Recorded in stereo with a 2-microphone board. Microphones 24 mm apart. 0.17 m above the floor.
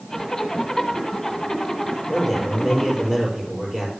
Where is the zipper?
15° left (ahead or behind), 1.6 m.